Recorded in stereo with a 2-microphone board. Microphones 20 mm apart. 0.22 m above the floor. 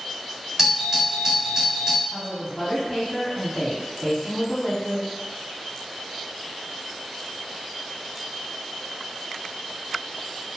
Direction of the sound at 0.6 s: 20° right (ahead or behind).